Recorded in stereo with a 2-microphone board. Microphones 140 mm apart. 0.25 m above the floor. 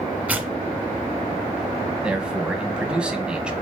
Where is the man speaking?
5° right (ahead or behind), 1.4 m.